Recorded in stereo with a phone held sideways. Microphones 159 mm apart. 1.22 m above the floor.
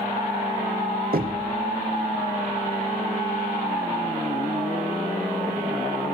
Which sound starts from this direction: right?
Knocking, at 1.1 s.